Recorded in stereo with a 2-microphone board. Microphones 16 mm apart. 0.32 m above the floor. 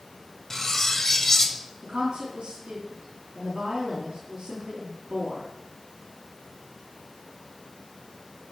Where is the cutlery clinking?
25° left (ahead or behind), 0.9 m.